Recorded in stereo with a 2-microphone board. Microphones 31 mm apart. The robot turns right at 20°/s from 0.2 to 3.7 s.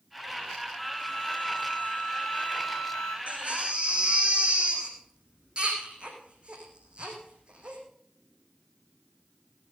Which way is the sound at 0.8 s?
Straight ahead.